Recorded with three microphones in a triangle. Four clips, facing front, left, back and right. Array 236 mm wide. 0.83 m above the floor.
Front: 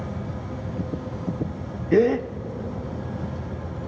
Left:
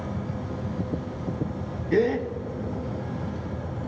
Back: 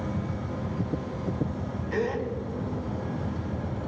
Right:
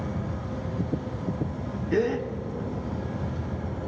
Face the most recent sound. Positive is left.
turn(degrees=10)